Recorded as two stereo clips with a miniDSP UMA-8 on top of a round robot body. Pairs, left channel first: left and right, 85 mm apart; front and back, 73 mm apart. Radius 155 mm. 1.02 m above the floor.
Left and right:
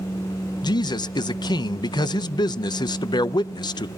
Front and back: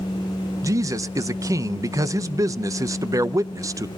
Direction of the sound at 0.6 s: 130° left.